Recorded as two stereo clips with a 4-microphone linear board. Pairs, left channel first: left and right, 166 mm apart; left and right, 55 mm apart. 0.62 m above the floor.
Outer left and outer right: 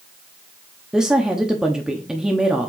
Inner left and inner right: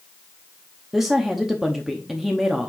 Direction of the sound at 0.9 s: 5° right (ahead or behind).